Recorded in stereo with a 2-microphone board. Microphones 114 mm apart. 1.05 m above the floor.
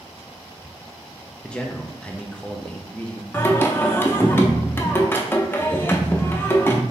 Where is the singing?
20° left (ahead or behind), 0.5 m.